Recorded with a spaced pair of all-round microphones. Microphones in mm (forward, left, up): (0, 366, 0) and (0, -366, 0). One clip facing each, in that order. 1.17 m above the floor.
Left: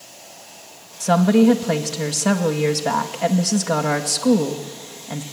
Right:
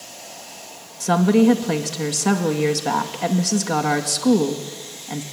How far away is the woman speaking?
About 1.7 m.